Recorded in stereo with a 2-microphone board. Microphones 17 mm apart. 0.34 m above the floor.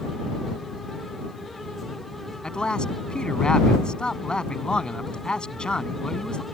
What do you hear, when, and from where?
2.4 s a man speaking: 65° left (ahead or behind)